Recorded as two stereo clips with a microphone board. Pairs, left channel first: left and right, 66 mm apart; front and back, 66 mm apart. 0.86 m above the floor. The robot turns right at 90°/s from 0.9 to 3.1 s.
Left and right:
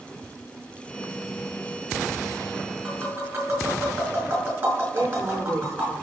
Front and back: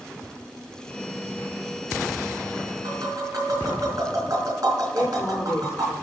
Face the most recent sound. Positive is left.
turn(degrees=-45)